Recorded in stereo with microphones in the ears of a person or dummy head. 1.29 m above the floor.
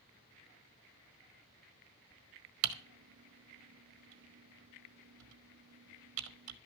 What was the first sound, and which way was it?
Typing on a keyboard, 75° right (ahead or behind).